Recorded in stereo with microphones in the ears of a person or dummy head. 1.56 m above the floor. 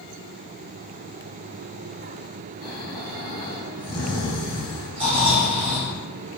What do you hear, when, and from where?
2.6 s snoring: 10° left (ahead or behind), 1.4 m
5.0 s snoring: 35° right (ahead or behind), 1.3 m